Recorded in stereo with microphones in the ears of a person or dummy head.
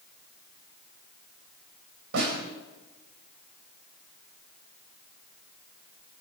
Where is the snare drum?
60° right (ahead or behind), 4.5 m.